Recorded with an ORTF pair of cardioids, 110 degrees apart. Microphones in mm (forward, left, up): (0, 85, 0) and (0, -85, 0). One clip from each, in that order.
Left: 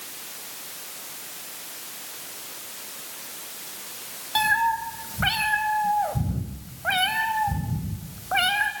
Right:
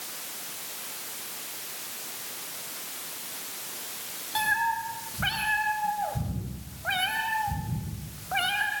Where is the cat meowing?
35° left, 4 m.